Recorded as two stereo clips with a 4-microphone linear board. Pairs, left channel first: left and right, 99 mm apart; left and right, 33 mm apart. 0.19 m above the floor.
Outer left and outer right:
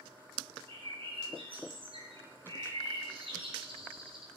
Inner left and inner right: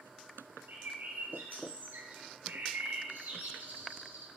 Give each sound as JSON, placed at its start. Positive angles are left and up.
{"t": 0.7, "sound": "a bird", "side_deg": -70, "distance_m": 4.0}